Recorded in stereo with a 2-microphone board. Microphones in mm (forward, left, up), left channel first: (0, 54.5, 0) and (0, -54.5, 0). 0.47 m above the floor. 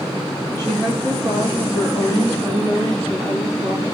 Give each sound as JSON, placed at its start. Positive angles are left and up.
{"t": 0.6, "sound": "a woman speaking", "side_deg": -50, "distance_m": 4.5}